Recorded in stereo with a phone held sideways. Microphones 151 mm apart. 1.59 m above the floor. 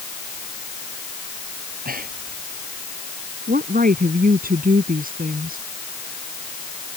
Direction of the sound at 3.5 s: 70° right (ahead or behind).